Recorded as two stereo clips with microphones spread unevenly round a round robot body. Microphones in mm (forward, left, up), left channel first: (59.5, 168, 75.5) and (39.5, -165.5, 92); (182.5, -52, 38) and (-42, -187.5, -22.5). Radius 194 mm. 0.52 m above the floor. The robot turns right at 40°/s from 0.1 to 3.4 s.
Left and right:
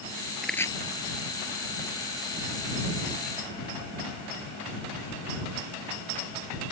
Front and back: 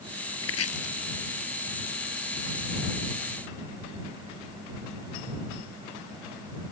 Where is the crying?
No crying in this recording.